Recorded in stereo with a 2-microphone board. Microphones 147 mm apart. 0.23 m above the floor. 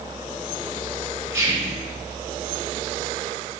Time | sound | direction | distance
1.3 | whispering | 20° right (ahead or behind) | 1.5 m